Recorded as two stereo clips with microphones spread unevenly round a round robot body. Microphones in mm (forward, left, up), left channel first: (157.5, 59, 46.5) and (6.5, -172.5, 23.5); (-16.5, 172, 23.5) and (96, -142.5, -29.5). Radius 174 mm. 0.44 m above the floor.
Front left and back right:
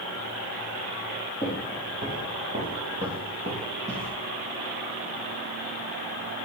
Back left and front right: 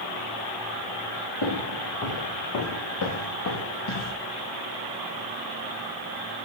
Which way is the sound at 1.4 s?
160° left.